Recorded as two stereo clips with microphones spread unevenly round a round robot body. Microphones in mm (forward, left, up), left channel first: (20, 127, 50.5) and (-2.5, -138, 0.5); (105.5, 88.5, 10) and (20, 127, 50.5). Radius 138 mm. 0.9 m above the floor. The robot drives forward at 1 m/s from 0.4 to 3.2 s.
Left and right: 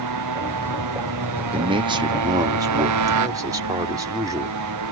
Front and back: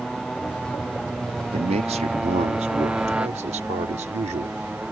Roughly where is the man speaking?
Behind right.